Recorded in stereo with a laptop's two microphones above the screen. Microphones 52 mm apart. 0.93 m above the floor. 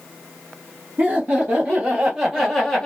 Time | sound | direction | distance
1.0 | laughter | 30° right (ahead or behind) | 1.3 m